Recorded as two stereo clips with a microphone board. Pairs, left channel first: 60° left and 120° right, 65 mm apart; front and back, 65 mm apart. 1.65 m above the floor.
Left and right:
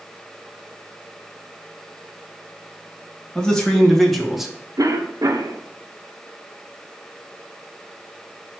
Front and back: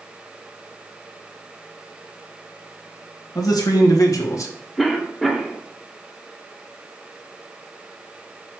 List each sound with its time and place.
3.4 s a man speaking: 15° right, 1.9 m; by 4.5 s 40° right, 1.2 m
4.8 s a cough: 90° right, 1.0 m